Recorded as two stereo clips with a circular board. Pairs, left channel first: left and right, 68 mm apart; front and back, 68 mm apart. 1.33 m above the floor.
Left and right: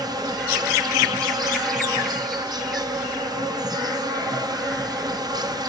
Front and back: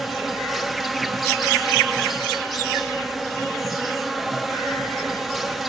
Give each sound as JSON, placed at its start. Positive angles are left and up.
{"t": 0.0, "sound": "an insect", "azimuth_deg": -90, "distance_m": 0.8}